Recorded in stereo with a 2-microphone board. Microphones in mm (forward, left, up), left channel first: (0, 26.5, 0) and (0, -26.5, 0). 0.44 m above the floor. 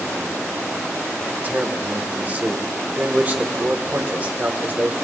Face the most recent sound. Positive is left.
turn(degrees=-35)  # may be behind; listen again after turning